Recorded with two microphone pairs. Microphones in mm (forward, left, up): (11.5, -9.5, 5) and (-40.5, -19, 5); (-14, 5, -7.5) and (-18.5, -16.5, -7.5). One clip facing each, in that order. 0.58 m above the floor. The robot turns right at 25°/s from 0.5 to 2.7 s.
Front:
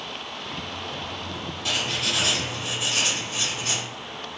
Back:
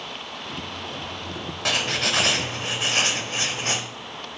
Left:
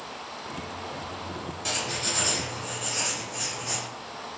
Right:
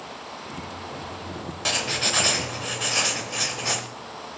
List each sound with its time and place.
1.6 s writing: 155° right, 0.8 m; by 3.8 s 130° right, 0.8 m